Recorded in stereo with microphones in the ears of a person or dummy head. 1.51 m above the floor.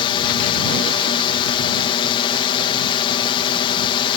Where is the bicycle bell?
No bicycle bell in this recording.